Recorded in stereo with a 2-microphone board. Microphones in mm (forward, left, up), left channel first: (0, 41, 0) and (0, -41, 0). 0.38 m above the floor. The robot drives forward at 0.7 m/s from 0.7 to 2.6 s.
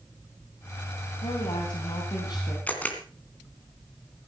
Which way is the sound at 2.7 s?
20° left (ahead or behind).